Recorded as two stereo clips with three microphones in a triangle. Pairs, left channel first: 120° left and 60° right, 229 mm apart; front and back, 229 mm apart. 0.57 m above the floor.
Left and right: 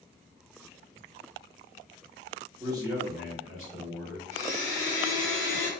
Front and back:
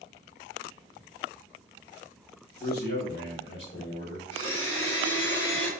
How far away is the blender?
About 1.9 m.